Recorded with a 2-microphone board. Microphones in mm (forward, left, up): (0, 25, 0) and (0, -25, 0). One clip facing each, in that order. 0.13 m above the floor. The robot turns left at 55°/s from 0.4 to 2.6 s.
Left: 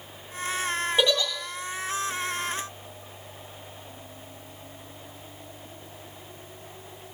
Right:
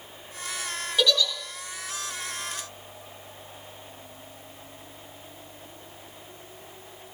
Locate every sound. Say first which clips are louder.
1.0 s a giggle: right 1 dB; 25° left (ahead or behind), 2 m; by 1.3 s 45° left (ahead or behind), 2 m